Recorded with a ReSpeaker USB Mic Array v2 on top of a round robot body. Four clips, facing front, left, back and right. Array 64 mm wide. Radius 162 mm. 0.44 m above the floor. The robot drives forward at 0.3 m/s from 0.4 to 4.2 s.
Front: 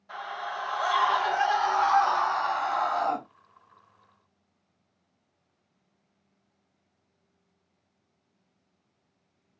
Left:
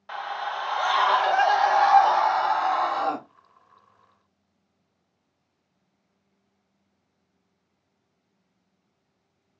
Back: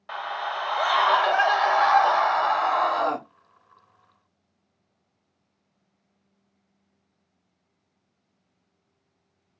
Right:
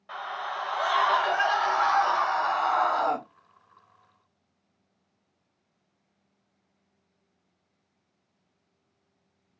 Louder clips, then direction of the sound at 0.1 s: Left 3 dB, back 5 dB; 160° left.